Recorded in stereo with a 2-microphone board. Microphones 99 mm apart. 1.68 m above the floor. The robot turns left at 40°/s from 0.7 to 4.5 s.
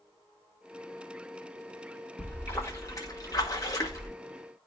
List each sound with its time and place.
2.2 s a splash: 150° left, 1.5 m; by 4.1 s 70° left, 1.5 m